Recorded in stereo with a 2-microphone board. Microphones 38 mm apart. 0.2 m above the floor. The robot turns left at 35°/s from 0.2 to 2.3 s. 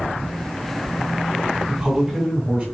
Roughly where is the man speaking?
Centre.